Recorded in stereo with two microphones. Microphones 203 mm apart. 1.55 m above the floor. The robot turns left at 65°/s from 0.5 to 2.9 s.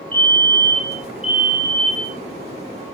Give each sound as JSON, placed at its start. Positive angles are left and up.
{"t": 0.1, "sound": "a fire alarm", "azimuth_deg": 140, "distance_m": 7.0}